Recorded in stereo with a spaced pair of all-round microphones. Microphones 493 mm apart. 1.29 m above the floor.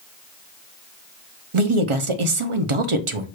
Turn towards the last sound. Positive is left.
turn(degrees=-75)  # may be behind; listen again after turning